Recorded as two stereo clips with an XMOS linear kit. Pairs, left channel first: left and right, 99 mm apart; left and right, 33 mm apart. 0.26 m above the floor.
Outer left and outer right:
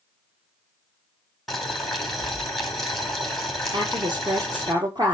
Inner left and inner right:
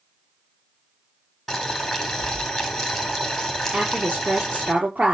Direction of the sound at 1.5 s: Centre (ahead or behind).